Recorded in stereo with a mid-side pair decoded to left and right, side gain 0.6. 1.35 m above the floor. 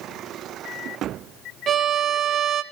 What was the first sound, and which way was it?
A violin, 40° right.